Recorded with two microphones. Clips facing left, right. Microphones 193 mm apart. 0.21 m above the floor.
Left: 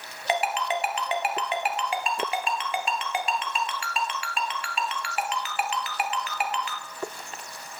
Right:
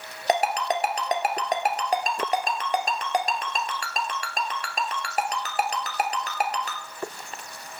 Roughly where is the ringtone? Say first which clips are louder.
Right 3 dB; right.